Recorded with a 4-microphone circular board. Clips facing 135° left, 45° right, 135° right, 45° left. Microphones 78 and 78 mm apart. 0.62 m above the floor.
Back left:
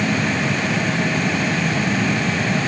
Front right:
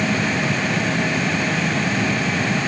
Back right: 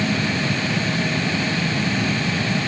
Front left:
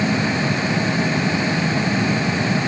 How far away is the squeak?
No squeak in this recording.